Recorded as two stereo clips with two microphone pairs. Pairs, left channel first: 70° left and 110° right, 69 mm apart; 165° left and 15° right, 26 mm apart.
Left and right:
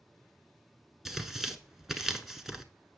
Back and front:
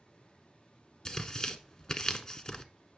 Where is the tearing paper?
175° left, 0.9 m.